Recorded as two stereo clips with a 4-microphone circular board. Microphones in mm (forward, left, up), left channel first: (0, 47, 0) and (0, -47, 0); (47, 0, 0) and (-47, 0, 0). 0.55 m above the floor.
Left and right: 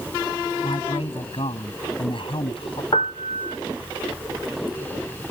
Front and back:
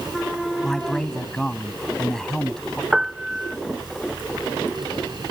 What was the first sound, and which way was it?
A man speaking, 85° left.